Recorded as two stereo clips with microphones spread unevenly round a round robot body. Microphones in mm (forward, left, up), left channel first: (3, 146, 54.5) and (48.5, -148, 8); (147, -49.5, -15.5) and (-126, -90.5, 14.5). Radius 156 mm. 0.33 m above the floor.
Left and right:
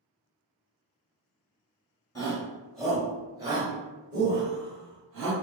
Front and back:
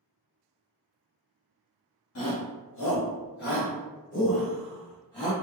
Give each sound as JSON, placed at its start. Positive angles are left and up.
{"t": 2.1, "sound": "a shout", "azimuth_deg": 15, "distance_m": 1.6}